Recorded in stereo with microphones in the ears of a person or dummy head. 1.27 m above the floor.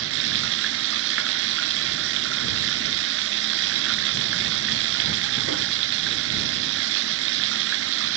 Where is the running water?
75° right (ahead or behind).